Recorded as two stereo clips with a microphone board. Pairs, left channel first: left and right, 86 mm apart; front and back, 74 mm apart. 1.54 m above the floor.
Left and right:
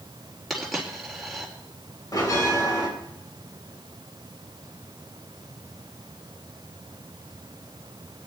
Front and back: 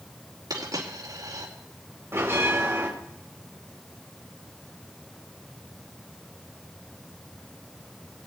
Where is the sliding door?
No sliding door in this recording.